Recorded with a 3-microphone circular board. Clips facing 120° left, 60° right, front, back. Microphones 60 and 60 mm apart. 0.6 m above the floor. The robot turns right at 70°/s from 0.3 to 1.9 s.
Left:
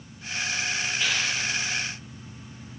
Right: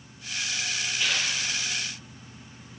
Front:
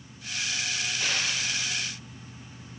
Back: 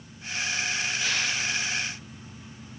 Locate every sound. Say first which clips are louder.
1.0 s tearing paper: even, front 1 dB; 25° left, 7 m; by 1.3 s 50° left, 7 m